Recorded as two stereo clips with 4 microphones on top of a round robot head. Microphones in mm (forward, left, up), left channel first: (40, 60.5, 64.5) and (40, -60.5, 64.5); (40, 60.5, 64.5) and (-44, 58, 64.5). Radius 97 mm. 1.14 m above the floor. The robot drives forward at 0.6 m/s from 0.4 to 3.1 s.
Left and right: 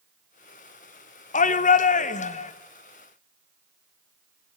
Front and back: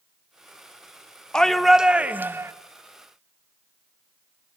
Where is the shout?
85° left, 1.0 m; by 2.5 s 120° left, 1.2 m.